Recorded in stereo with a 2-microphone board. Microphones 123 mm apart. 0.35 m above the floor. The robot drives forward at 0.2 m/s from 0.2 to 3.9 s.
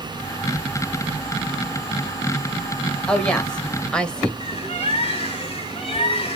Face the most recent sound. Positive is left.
turn(degrees=50)  # may be behind; listen again after turning